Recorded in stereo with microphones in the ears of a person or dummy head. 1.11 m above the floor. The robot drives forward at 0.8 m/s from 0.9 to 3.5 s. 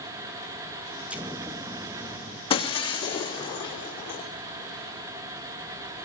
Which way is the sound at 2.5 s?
25° left (ahead or behind).